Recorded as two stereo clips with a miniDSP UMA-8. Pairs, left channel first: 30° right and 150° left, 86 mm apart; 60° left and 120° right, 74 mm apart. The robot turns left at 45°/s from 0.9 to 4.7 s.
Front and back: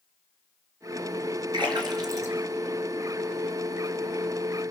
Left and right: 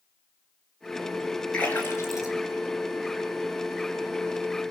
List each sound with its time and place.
1.5 s a splash: 130° left, 3.5 m; by 3.5 s 40° left, 3.5 m